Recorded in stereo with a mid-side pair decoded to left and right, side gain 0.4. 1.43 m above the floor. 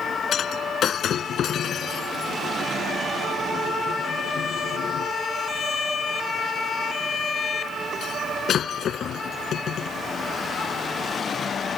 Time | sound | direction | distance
0.3 | breaking glass | 65° left | ?